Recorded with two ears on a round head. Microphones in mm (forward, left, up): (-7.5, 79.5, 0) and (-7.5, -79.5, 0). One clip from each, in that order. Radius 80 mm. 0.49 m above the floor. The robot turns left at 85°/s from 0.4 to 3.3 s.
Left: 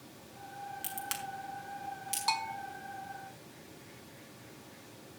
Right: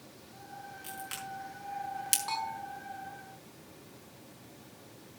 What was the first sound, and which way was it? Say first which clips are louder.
A crack: even; 60° left (ahead or behind).